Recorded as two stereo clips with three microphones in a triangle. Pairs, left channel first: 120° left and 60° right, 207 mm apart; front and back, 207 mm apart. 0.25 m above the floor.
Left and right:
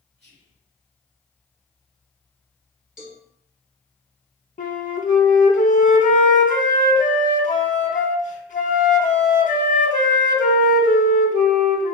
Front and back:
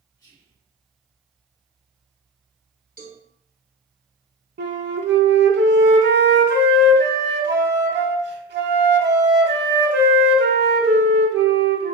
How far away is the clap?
No clap in this recording.